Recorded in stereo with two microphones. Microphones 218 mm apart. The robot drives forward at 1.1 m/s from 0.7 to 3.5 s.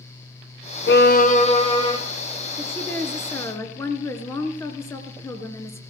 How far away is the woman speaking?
About 2.5 m.